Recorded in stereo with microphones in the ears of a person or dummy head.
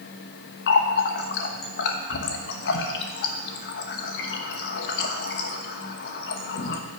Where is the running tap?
60° left (ahead or behind), 1.1 m.